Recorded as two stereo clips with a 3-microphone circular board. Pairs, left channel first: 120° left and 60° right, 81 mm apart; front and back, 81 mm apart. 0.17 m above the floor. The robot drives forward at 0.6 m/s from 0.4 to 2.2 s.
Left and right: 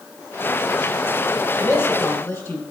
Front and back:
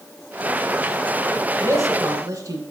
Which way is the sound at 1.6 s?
160° left.